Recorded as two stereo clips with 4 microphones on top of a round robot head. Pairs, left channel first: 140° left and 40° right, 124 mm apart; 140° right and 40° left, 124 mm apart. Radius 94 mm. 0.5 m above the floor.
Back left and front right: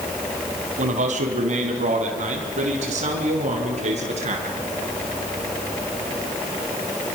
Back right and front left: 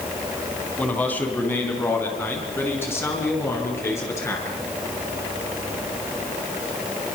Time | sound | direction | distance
0.8 | a man speaking | 60° right | 3.5 m